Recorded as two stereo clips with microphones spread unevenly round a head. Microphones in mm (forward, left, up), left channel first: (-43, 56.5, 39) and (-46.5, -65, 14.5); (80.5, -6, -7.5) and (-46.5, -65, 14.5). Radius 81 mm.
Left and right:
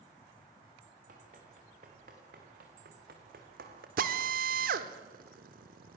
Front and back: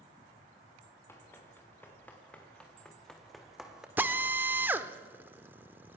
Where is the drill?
80° right, 1.4 m.